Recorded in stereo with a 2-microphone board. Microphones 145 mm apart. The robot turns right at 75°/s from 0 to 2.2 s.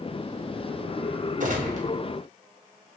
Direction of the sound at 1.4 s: 95° right.